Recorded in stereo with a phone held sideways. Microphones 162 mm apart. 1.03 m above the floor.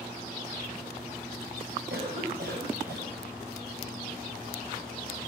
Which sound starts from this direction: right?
A cough, at 1.9 s.